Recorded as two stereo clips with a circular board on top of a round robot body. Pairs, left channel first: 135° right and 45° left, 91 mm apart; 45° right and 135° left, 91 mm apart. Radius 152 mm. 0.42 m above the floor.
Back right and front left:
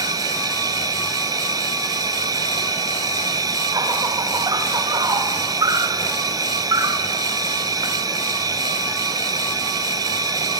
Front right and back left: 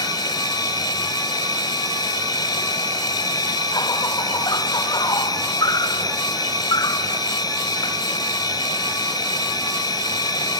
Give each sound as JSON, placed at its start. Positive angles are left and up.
{"t": 0.0, "sound": "an insect", "azimuth_deg": 0, "distance_m": 2.5}